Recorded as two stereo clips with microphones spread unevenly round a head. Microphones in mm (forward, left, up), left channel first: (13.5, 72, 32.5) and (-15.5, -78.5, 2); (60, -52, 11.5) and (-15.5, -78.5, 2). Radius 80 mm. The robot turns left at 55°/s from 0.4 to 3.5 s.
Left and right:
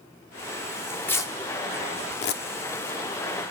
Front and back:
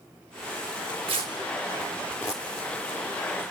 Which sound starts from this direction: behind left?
Tearing paper, at 1.1 s.